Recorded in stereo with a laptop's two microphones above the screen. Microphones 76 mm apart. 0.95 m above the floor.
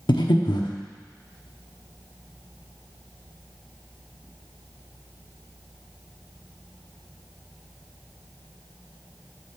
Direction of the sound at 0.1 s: 80° left.